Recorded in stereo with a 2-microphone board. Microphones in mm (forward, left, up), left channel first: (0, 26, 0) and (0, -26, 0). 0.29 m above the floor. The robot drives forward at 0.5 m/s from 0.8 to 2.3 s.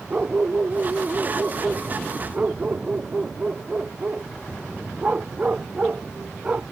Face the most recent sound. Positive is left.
turn(degrees=-25)  # may be behind; listen again after turning